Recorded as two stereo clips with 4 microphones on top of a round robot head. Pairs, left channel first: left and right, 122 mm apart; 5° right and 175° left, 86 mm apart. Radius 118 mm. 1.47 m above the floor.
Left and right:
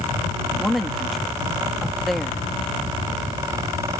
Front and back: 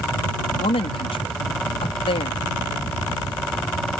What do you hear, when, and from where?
0.6 s a woman speaking: straight ahead